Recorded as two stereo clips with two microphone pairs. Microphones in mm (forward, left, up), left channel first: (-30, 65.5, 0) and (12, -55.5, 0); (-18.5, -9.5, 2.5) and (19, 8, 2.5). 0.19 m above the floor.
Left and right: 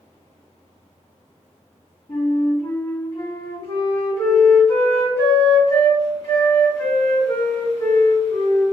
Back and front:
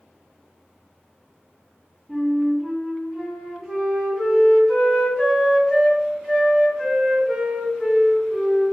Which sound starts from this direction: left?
A flute, at 2.1 s.